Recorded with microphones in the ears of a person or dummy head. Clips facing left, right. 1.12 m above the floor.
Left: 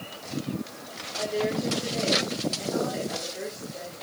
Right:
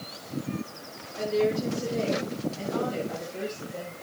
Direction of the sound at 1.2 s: 30° right (ahead or behind).